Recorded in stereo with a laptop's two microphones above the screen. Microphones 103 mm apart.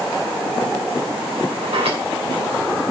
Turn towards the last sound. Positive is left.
turn(degrees=-80)